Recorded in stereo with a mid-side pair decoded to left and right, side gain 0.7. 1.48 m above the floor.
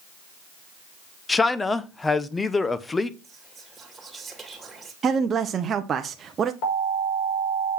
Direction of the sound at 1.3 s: 15° left.